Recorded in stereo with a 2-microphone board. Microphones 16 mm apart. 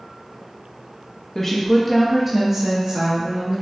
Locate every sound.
1.4 s a woman speaking: 20° left (ahead or behind), 0.8 m; by 3.6 s 55° right (ahead or behind), 1.3 m